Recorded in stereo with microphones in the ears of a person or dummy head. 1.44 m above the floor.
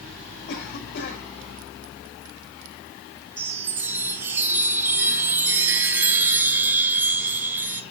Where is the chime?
10° right (ahead or behind), 0.9 m.